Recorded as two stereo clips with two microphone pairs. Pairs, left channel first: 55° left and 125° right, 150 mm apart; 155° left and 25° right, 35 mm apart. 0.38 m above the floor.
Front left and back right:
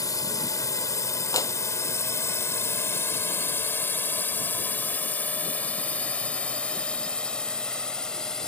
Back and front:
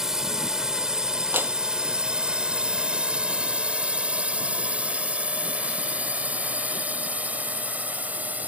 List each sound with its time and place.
0.0 s a drone: 30° left; by 8.5 s 30° right
1.3 s a clap: 10° right